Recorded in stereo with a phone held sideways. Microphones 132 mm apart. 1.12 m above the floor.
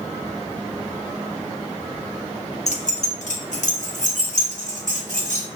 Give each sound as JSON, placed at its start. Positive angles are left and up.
{"t": 2.7, "sound": "keys jangling", "side_deg": 60, "distance_m": 0.5}